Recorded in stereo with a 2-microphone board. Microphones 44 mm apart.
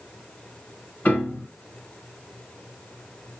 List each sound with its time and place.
1.1 s a piano: 40° left (ahead or behind), 1.7 m